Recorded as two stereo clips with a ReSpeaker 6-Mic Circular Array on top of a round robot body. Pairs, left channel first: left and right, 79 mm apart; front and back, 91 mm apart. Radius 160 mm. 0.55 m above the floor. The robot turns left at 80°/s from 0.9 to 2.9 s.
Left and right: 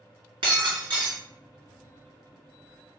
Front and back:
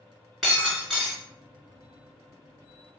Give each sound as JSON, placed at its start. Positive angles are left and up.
{"t": 0.4, "sound": "breaking glass", "azimuth_deg": -90, "distance_m": 2.5}